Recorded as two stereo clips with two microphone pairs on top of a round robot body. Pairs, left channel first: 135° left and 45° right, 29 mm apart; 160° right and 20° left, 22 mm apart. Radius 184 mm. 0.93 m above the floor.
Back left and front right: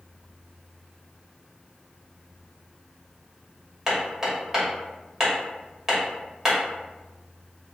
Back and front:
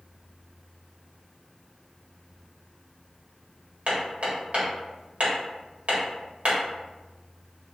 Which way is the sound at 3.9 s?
25° left.